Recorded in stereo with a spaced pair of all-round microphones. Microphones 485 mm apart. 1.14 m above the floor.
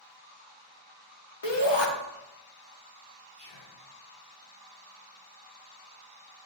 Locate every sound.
1.4 s a shout: 55° left (ahead or behind), 1.3 m
3.4 s whispering: 10° left (ahead or behind), 3.5 m